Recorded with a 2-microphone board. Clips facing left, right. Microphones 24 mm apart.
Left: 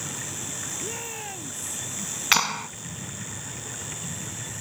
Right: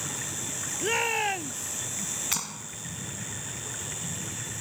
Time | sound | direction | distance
0.8 | a shout | 40° right (ahead or behind) | ?
2.3 | a clap | 45° left (ahead or behind) | ?